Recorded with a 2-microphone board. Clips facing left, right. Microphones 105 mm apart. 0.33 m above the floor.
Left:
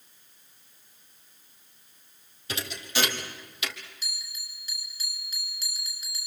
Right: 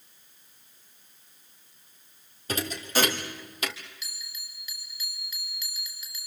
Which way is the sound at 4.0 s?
35° left (ahead or behind).